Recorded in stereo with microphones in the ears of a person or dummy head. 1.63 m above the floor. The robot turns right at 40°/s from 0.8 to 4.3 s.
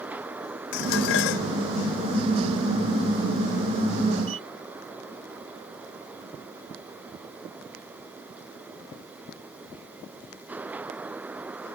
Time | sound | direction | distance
0.7 | dishes clattering | 75° left (ahead or behind) | ?